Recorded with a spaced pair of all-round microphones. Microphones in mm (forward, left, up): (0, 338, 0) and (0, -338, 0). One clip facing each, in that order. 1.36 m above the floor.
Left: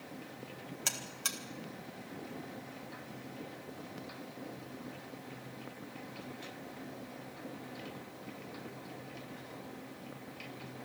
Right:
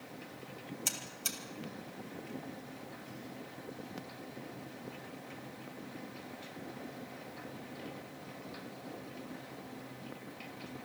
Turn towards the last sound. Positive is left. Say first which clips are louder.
# even
turn(degrees=80)